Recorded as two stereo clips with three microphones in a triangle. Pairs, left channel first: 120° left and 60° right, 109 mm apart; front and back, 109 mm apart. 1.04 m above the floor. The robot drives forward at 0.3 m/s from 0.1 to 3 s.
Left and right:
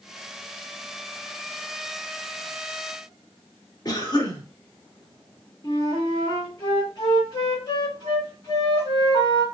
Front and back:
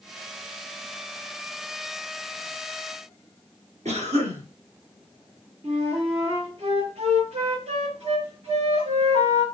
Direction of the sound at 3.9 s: 175° left.